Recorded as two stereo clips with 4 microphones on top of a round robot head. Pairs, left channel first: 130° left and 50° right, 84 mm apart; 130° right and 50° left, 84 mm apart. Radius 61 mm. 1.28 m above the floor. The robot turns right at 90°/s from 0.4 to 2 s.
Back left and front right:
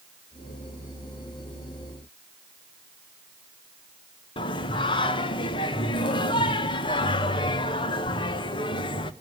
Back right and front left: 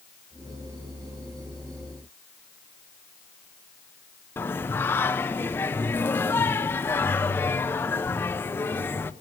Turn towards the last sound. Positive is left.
turn(degrees=160)